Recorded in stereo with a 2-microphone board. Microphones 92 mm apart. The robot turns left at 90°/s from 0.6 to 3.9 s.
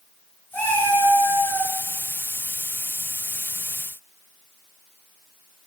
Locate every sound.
0.5 s a cat meowing: 165° left, 1.3 m; by 1.7 s 70° left, 1.3 m